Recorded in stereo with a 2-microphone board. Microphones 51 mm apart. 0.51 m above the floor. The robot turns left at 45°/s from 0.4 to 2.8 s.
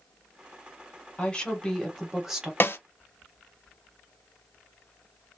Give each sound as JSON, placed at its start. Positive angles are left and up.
{"t": 1.2, "sound": "a woman speaking", "azimuth_deg": 40, "distance_m": 1.2}
{"t": 2.6, "sound": "a snare drum", "side_deg": 45, "distance_m": 0.5}